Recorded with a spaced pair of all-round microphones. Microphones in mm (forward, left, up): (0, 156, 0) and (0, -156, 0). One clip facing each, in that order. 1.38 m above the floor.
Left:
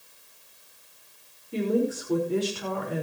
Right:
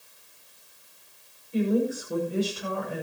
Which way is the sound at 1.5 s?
80° left.